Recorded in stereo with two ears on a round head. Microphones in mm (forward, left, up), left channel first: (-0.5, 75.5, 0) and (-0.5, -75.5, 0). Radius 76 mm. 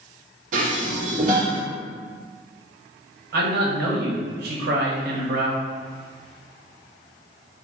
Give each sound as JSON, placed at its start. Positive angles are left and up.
{"t": 0.5, "sound": "dishes clattering", "side_deg": -50, "distance_m": 0.9}
{"t": 3.3, "sound": "a man speaking", "side_deg": -60, "distance_m": 0.8}